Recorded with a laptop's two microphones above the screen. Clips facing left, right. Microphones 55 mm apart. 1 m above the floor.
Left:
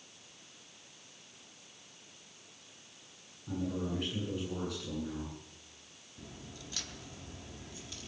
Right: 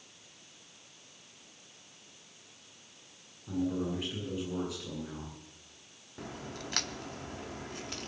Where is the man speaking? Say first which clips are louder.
Right 3 dB; 5° right (ahead or behind), 9.5 m.